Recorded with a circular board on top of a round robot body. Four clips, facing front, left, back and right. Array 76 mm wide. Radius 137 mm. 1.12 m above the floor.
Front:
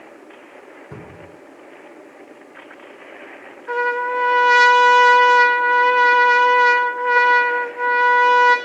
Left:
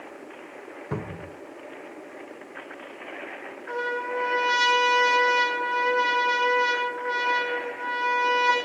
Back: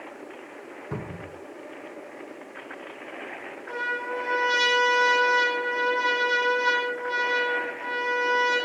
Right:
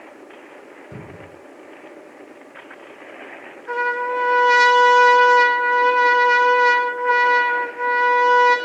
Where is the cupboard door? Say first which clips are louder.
Left 6 dB, back 3 dB; 105° left, 3 m.